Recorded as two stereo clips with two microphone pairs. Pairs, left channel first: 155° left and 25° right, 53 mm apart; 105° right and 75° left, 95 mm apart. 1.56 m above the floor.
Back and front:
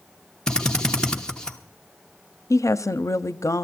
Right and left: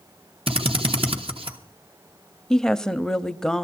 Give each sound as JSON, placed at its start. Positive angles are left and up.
{"t": 0.5, "sound": "a drill", "azimuth_deg": 80, "distance_m": 1.3}
{"t": 2.5, "sound": "a woman speaking", "azimuth_deg": 170, "distance_m": 0.5}